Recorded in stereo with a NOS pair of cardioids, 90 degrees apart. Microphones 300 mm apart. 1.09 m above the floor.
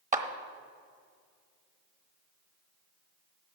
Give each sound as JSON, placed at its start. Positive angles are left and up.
{"t": 0.1, "sound": "a clap", "azimuth_deg": -25, "distance_m": 1.2}